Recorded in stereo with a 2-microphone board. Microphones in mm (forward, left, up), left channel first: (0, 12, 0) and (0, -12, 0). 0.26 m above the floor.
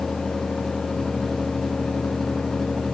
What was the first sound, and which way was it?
Only background noise.